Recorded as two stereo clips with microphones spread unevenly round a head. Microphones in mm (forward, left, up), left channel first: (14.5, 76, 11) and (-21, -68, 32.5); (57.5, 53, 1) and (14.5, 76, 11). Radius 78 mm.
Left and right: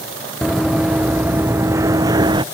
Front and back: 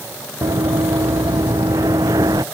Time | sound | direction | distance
0.4 | running footsteps | 170° left | ?